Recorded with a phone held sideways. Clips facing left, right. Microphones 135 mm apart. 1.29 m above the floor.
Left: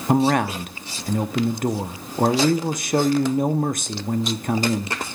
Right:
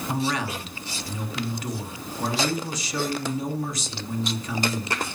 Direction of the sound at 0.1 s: 55° left (ahead or behind).